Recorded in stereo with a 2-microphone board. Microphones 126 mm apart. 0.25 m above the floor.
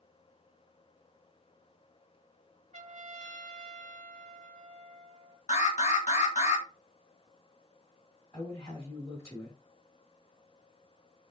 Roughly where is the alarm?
Left.